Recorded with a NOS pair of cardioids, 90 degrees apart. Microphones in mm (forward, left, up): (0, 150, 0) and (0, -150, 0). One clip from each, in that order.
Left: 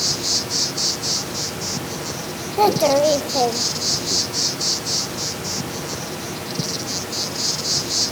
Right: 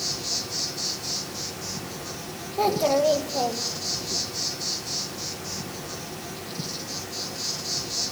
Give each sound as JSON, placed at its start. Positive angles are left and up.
{"t": 0.0, "sound": "an insect", "azimuth_deg": 50, "distance_m": 1.0}
{"t": 2.6, "sound": "a child speaking", "azimuth_deg": 40, "distance_m": 1.1}